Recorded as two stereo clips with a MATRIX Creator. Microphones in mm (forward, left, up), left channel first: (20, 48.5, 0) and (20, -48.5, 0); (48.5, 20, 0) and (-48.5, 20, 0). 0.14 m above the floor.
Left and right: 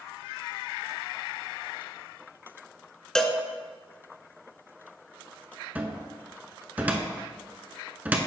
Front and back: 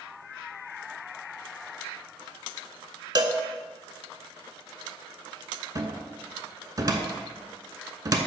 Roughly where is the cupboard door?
Behind right.